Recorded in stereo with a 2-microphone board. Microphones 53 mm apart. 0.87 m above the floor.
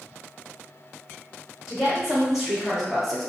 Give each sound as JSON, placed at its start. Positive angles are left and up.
{"t": 1.7, "sound": "a woman speaking", "side_deg": -10, "distance_m": 1.6}